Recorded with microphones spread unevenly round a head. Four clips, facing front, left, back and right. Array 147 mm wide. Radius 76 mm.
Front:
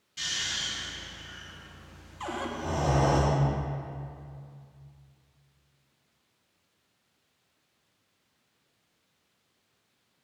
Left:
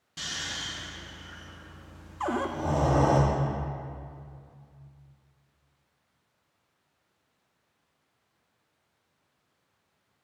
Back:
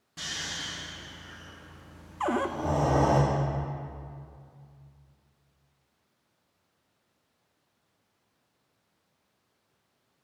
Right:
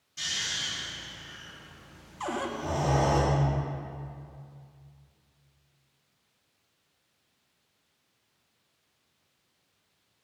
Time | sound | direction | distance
0.2 | snoring | 140° left | 1.5 m
2.2 | a cupboard door | 165° left | 0.5 m